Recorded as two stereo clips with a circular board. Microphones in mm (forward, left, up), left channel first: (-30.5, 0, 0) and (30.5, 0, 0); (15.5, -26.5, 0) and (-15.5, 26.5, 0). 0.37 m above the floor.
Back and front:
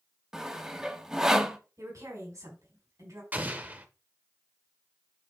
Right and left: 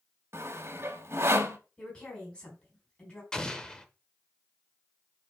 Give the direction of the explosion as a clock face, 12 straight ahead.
12 o'clock.